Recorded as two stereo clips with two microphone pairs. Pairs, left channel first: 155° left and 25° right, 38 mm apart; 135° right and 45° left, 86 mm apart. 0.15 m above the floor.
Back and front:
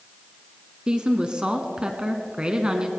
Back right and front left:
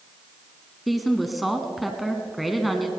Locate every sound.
0.9 s a woman speaking: 45° right, 1.1 m